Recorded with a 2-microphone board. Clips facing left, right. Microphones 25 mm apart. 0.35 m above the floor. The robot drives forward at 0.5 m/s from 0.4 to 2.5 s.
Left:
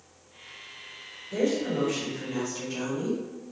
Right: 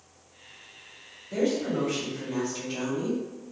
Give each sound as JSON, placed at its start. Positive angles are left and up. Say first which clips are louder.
{"t": 1.3, "sound": "a woman speaking", "louder": "even", "side_deg": -45, "distance_m": 1.4}